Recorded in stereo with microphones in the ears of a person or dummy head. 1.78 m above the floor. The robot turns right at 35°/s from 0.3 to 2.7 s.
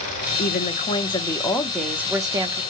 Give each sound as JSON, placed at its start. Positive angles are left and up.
{"t": 0.4, "sound": "a woman speaking", "azimuth_deg": 125, "distance_m": 0.7}